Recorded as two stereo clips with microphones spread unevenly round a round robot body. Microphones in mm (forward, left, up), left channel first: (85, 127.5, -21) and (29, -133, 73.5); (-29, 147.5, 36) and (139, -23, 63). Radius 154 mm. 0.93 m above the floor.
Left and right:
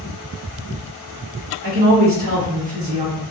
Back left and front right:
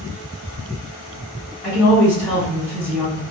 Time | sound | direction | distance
1.6 | a woman speaking | 170° right | 1.1 m